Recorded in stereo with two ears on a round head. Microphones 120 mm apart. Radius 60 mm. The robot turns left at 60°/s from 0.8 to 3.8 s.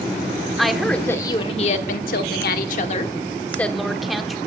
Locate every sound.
0.6 s a woman speaking: straight behind, 1.2 m; by 4.4 s straight ahead, 1.2 m